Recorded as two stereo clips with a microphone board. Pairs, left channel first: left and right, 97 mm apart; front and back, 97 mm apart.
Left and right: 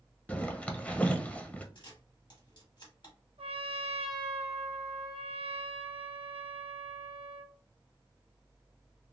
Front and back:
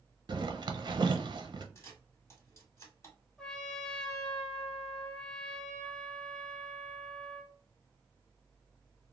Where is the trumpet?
80° right, 0.6 m.